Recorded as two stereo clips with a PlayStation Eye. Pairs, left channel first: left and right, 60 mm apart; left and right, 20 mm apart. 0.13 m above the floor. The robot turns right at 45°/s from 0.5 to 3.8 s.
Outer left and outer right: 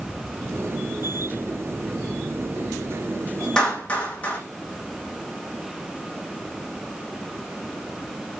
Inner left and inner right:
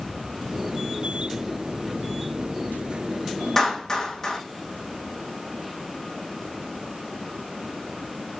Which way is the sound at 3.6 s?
10° left (ahead or behind).